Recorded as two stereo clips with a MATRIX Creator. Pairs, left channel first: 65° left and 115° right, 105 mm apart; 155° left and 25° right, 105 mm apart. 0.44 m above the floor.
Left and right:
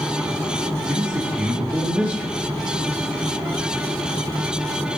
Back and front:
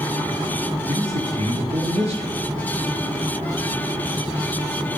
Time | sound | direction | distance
0.9 | a man speaking | 35° right | 7.5 m